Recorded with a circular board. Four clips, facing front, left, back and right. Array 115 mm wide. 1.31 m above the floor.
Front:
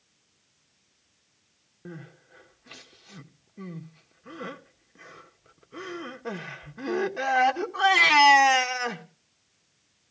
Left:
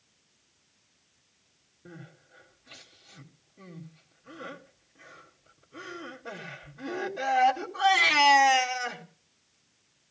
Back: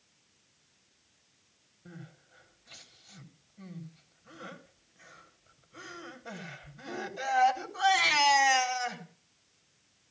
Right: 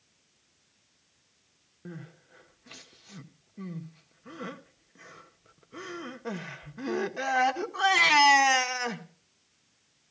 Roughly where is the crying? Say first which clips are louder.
Right 4 dB, front 7 dB; ahead right.